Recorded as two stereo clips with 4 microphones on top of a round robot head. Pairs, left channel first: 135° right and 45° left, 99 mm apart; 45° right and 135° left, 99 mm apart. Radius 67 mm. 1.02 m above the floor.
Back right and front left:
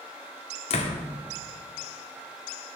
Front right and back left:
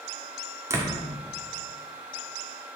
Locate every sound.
0.7 s a door slam: 160° right, 1.6 m